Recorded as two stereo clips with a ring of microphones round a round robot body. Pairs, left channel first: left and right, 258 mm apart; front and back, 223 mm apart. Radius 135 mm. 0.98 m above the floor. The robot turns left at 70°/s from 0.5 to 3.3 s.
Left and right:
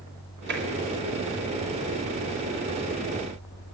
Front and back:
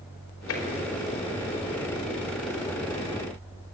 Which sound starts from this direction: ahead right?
Tapping, at 0.5 s.